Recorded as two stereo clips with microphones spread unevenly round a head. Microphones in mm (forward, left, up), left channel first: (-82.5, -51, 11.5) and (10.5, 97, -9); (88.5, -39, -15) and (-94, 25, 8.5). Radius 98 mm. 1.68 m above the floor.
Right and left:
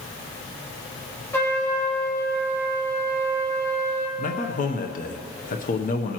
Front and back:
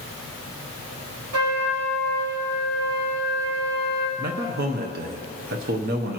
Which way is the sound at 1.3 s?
160° left.